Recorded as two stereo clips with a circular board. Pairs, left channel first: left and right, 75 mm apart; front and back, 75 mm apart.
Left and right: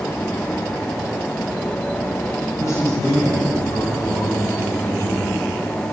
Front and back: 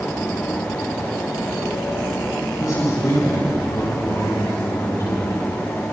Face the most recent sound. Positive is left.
turn(degrees=50)